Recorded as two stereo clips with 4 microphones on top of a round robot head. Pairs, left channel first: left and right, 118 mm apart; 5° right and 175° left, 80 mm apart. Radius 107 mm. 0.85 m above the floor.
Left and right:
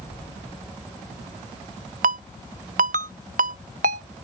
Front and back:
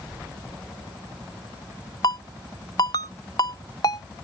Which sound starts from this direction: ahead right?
A ringtone, at 2.0 s.